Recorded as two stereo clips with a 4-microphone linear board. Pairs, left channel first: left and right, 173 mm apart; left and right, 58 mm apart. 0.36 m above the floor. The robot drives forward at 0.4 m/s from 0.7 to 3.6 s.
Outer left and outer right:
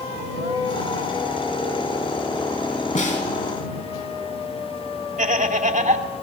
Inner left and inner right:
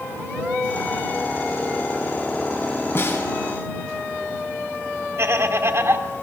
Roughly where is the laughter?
Right.